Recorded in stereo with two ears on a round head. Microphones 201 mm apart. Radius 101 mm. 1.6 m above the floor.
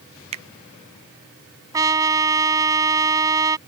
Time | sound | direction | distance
0.3 | a finger snap | 25° right (ahead or behind) | ?
1.7 | a trumpet | 15° right (ahead or behind) | ?